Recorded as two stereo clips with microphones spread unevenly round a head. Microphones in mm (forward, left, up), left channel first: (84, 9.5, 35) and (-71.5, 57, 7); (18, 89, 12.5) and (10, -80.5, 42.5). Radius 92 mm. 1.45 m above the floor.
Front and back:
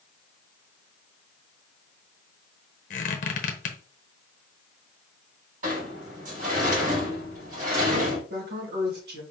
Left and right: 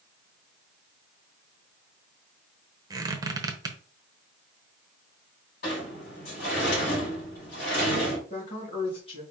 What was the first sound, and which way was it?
A squeak, 35° right.